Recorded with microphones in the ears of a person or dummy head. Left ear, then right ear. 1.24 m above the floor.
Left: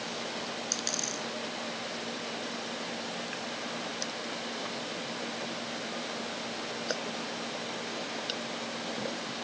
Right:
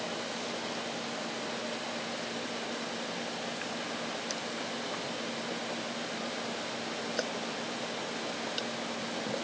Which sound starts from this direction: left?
A dropped coin, at 0.7 s.